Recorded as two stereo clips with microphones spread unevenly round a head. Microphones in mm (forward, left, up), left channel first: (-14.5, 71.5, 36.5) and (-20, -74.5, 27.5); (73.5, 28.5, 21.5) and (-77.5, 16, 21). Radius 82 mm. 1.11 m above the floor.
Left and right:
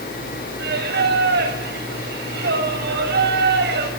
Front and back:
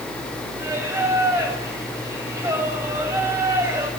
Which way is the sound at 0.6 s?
100° right.